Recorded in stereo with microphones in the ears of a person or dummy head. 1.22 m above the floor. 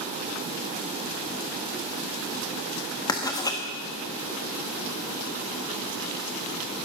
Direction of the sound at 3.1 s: 15° left (ahead or behind).